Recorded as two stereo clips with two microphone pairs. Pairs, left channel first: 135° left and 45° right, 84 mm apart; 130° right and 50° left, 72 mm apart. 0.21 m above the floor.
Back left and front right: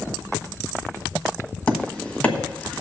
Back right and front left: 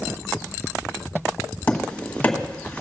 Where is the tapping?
175° right, 1.6 m.